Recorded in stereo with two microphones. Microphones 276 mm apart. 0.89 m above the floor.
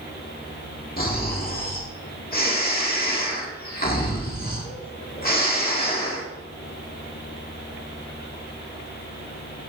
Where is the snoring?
35° left (ahead or behind), 1.8 m.